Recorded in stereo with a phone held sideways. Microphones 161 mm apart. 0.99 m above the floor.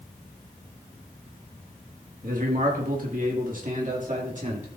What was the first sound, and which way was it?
A man speaking, 60° right (ahead or behind).